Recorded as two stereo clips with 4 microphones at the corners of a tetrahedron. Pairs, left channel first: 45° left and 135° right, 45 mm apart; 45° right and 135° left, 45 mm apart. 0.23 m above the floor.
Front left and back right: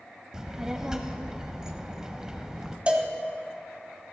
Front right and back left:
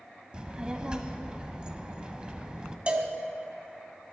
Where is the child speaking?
170° left, 0.6 m.